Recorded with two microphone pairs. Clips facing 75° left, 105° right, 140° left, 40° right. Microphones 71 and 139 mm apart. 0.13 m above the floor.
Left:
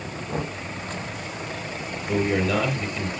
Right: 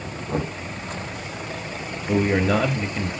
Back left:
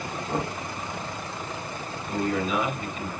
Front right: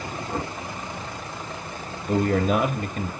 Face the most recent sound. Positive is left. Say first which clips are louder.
# right 3 dB, front right 5 dB
turn(degrees=-60)